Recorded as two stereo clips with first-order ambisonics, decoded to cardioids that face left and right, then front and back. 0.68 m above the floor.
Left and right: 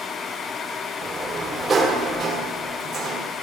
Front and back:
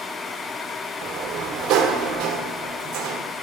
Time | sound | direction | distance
1.0 | a sliding door | 150° right | 1.4 m